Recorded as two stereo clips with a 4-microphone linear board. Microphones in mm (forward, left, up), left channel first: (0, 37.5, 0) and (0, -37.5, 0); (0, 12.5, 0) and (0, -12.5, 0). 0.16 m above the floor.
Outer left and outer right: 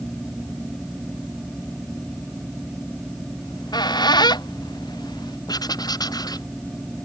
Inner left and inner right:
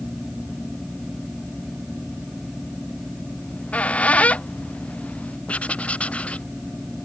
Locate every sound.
3.4 s a squeak: 70° left (ahead or behind)
5.5 s writing: 60° left (ahead or behind)